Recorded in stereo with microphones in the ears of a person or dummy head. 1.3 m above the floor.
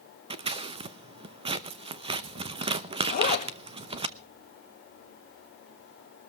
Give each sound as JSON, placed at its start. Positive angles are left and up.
{"t": 0.3, "sound": "scissors", "side_deg": -35, "distance_m": 0.8}
{"t": 3.1, "sound": "a zipper", "side_deg": 40, "distance_m": 2.5}